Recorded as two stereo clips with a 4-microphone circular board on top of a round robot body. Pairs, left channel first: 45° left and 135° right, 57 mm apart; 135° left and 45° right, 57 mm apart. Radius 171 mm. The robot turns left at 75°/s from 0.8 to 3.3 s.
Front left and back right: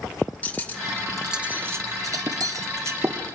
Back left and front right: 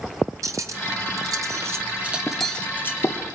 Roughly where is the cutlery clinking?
Ahead.